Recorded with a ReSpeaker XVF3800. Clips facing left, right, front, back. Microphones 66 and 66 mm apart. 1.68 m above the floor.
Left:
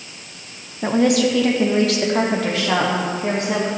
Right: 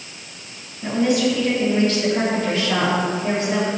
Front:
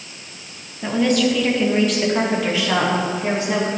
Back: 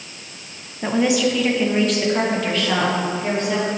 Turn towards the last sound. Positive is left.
turn(degrees=75)